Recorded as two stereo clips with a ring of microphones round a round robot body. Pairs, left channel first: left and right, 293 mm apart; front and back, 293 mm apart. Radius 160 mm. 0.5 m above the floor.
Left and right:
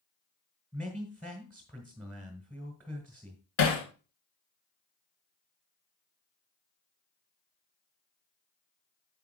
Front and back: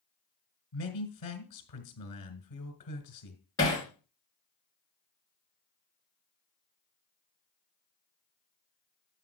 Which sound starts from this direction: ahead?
A man speaking, at 0.7 s.